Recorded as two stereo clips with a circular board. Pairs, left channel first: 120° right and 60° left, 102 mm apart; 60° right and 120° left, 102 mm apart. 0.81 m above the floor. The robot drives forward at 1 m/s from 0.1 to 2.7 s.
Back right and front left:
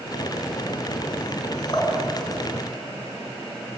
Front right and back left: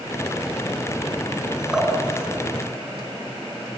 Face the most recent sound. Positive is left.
turn(degrees=-160)